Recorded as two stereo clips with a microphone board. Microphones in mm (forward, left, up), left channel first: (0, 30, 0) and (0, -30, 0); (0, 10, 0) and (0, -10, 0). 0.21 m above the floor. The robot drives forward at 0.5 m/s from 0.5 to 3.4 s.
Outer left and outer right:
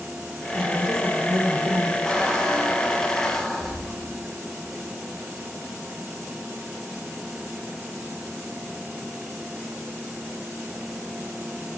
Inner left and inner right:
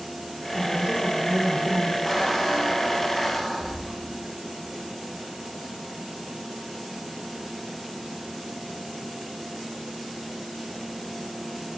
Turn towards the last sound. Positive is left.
turn(degrees=5)  # may be behind; listen again after turning